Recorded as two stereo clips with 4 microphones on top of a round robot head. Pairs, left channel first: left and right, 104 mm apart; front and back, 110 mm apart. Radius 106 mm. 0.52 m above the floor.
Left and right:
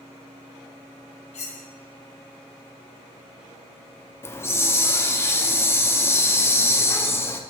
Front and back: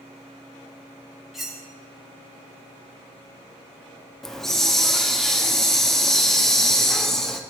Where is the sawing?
I don't hear sawing.